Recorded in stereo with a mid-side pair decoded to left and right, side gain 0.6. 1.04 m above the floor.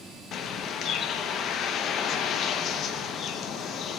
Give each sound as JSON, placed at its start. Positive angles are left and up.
{"t": 0.3, "sound": "a bird", "azimuth_deg": 50, "distance_m": 0.8}